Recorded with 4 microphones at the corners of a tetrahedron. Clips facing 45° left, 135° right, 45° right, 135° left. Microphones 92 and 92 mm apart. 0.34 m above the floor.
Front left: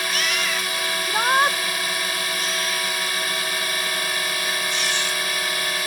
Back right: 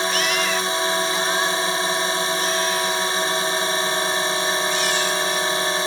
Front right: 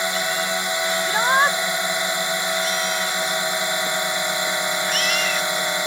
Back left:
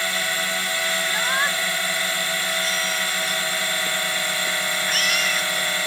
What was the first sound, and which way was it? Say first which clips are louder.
A drone: back right 4 dB, front right 3 dB; 100° right.